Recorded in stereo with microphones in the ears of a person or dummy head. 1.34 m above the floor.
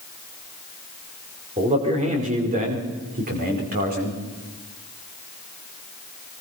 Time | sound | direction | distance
1.6 | a man speaking | 30° right (ahead or behind) | 4.5 m